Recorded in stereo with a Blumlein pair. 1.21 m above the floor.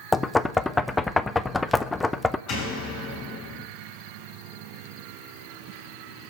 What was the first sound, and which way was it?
Knocking, 10° left.